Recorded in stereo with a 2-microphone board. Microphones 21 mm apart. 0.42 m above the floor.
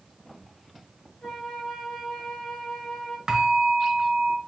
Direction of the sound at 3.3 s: 35° right (ahead or behind).